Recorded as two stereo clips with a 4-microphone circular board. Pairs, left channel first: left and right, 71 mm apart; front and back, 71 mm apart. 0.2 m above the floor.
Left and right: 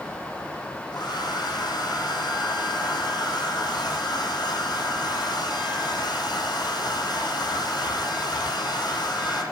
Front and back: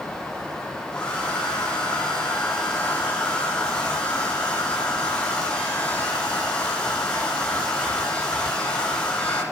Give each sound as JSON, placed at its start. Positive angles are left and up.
{"t": 0.9, "sound": "a hair dryer", "azimuth_deg": 75, "distance_m": 7.5}